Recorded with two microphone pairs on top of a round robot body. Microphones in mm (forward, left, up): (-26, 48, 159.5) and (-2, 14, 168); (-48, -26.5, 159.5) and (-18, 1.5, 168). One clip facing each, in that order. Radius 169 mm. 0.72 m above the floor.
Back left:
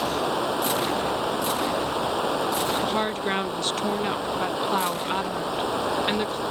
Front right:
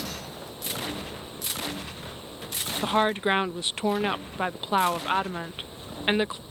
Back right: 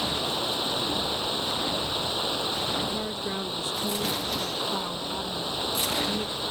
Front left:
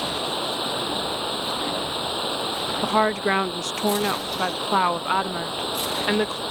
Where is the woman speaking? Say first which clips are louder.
Front right 1 dB, front left 10 dB; 30° left.